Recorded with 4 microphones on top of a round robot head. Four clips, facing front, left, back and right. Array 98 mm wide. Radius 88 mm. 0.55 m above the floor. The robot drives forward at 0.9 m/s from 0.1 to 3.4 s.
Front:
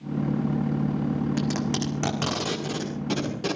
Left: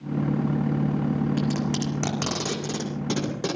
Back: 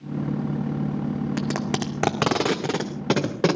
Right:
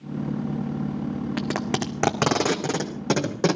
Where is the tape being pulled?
120° right, 1.9 m; by 3.5 s 155° right, 3 m.